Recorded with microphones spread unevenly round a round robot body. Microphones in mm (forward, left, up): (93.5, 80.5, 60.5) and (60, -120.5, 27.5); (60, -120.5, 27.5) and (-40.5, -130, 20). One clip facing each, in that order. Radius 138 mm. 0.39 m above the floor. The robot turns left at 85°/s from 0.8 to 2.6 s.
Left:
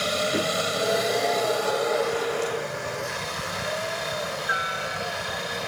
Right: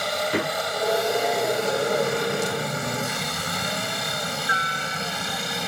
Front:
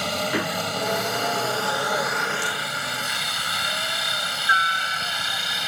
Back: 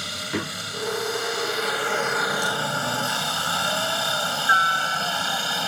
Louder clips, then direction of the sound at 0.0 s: Even, front 5 dB; 30° left.